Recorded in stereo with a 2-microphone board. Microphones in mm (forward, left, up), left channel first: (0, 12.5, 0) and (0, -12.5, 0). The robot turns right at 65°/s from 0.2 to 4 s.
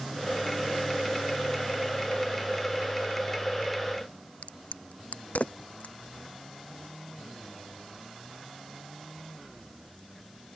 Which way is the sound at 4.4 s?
65° left (ahead or behind).